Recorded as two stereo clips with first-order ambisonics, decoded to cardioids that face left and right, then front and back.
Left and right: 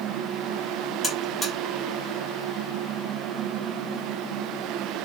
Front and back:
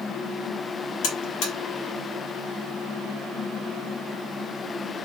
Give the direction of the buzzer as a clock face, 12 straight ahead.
12 o'clock.